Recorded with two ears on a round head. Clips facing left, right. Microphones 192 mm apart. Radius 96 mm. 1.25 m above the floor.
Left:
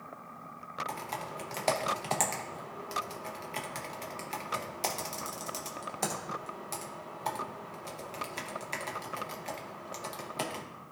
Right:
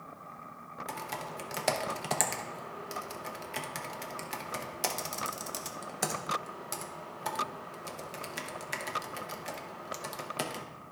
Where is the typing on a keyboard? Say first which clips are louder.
Even; 10° right (ahead or behind), 0.7 m.